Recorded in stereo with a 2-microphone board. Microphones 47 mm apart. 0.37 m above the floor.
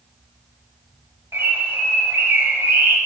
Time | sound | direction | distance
1.3 | a bird | 60° right (ahead or behind) | 0.5 m